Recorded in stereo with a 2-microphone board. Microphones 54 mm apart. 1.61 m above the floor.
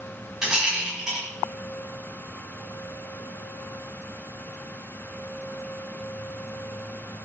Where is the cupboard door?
No cupboard door in this recording.